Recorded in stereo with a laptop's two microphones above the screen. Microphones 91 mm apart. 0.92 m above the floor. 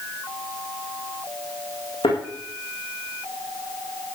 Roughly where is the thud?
Left.